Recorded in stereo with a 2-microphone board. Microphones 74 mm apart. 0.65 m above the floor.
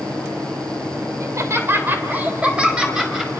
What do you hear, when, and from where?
1.2 s laughter: 45° right (ahead or behind), 2.5 m; by 3.3 s 5° right (ahead or behind), 4 m